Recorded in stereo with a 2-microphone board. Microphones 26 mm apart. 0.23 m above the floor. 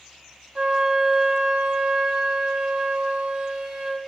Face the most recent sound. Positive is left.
turn(degrees=-35)  # may be behind; listen again after turning